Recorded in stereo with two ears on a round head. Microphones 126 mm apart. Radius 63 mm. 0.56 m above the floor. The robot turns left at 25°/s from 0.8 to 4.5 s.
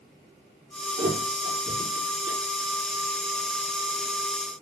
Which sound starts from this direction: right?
A thud, at 1.0 s.